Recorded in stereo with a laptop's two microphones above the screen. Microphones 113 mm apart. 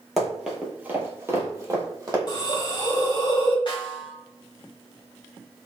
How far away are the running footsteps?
About 0.9 m.